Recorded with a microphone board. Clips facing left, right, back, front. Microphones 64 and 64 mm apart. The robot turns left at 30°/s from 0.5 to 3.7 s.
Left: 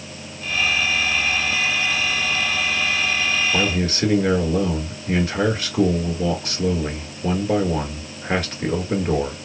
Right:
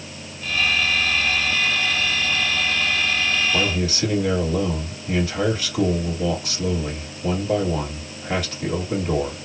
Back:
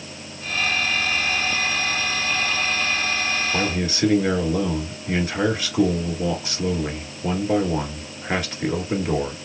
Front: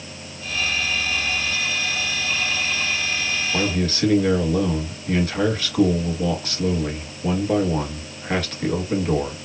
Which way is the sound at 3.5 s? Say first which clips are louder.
Left 1 dB, front 1 dB; 115° left.